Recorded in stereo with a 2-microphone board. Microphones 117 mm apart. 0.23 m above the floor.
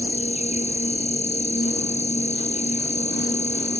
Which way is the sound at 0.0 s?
80° left.